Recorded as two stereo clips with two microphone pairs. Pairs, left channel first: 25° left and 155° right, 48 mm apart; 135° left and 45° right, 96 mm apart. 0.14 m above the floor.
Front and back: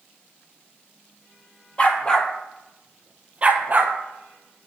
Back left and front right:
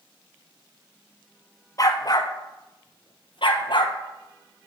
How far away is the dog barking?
About 1.0 m.